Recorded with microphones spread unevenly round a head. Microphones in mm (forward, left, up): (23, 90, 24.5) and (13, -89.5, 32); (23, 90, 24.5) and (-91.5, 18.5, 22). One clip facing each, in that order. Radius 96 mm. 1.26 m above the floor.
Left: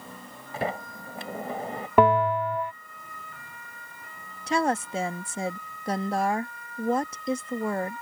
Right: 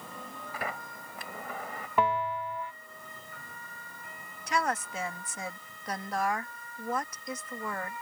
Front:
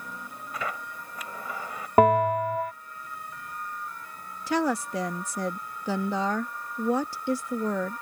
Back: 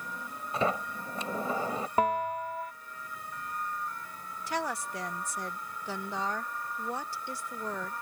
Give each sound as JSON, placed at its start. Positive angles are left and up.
{"t": 0.5, "sound": "a sliding door", "azimuth_deg": 150}
{"t": 2.0, "sound": "a bell", "azimuth_deg": 55}
{"t": 4.5, "sound": "a woman speaking", "azimuth_deg": 25}